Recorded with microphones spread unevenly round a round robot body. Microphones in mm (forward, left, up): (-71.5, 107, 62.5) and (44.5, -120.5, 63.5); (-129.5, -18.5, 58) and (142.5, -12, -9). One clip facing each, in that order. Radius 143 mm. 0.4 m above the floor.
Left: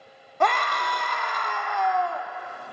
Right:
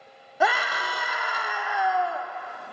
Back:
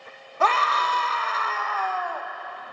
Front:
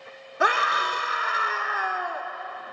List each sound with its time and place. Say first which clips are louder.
0.4 s a scream: left 1 dB, back 1 dB; 15° left, 0.8 m